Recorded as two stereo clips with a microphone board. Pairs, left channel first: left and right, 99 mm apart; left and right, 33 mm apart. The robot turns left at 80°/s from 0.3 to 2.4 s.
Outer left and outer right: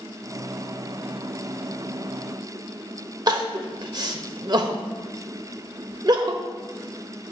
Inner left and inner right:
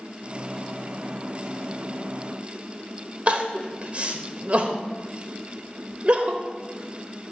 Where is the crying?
45° right (ahead or behind), 0.9 m.